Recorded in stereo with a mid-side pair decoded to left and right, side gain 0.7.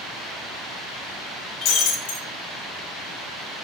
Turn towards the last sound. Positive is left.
turn(degrees=70)